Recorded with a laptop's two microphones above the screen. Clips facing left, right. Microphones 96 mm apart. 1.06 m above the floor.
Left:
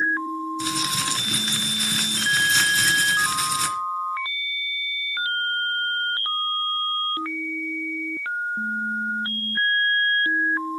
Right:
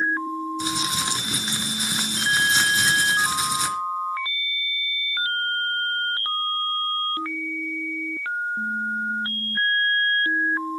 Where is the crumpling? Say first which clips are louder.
Even; 20° right (ahead or behind), 2.5 m.